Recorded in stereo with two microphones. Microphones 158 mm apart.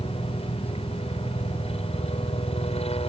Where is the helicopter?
40° left (ahead or behind).